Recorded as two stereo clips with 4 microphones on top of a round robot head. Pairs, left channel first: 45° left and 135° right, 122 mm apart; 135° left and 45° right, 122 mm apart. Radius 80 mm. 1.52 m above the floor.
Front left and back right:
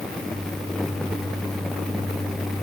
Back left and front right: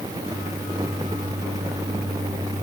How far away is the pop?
No pop in this recording.